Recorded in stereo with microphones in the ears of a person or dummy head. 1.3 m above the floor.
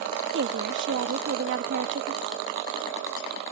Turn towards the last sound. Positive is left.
turn(degrees=-60)  # may be behind; listen again after turning